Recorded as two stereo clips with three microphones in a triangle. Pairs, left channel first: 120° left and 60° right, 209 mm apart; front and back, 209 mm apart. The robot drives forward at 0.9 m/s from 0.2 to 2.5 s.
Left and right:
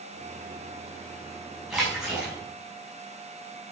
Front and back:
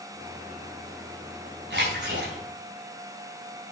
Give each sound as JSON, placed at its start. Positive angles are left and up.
{"t": 1.7, "sound": "a splash", "azimuth_deg": -150, "distance_m": 6.5}